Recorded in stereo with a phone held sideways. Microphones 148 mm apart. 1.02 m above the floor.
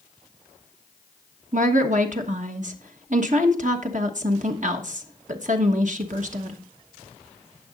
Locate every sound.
1.5 s a woman speaking: 60° right (ahead or behind), 1.2 m